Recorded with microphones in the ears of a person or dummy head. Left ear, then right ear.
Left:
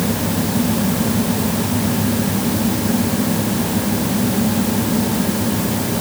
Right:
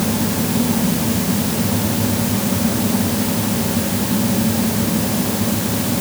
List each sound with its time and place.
Only background noise.